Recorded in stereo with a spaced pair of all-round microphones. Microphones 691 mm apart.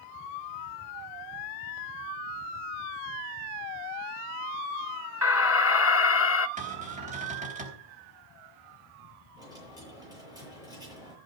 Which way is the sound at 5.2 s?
20° left (ahead or behind).